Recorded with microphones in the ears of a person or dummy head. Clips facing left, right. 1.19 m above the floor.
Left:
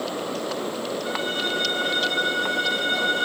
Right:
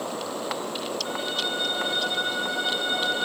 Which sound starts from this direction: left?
A violin, at 1.1 s.